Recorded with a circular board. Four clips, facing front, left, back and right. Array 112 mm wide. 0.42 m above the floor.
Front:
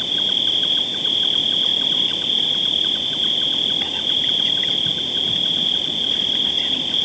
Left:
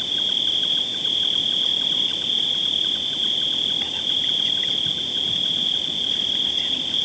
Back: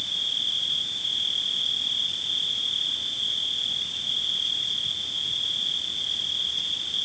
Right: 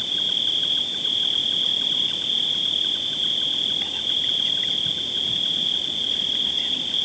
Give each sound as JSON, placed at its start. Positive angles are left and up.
{"t": 0.0, "sound": "an insect", "azimuth_deg": 5}